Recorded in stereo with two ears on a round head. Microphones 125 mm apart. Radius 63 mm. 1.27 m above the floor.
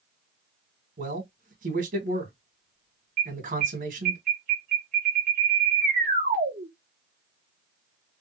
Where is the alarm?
60° right (ahead or behind), 1.6 m.